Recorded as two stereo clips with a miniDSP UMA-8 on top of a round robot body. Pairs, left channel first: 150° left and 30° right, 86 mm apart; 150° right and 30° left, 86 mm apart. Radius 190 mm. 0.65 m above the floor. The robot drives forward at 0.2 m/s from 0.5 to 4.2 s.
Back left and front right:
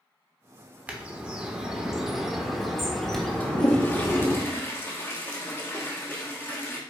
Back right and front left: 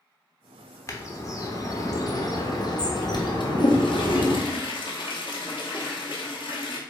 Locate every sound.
0.9 s a bird: 100° right, 1.1 m; by 4.4 s 135° right, 1.3 m
3.4 s a toilet flushing: 145° right, 1.0 m; by 6.8 s 150° right, 1.2 m